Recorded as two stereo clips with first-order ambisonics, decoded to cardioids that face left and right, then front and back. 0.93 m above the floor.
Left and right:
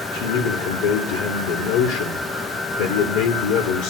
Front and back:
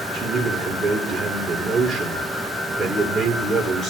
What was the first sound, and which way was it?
A man speaking, 110° left.